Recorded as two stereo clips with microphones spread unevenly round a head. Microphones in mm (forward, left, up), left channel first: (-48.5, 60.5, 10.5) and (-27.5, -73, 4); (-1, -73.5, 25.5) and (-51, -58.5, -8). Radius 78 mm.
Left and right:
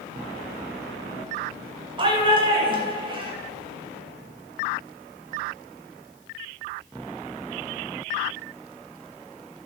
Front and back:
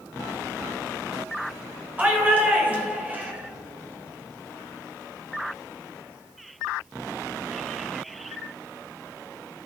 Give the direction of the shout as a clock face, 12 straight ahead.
4 o'clock.